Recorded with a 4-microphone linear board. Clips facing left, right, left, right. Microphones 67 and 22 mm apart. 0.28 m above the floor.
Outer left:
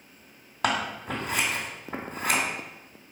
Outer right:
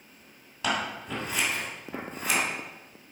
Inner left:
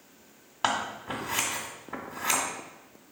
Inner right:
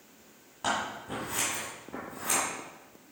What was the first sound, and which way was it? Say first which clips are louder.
Scissors: outer left 2 dB, inner left 3 dB; 55° left (ahead or behind).